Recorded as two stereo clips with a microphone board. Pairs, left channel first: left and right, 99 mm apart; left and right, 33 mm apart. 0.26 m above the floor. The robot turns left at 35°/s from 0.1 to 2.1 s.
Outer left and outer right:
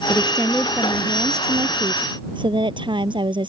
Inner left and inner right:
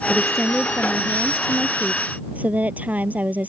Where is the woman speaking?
15° left; by 3.5 s 55° right.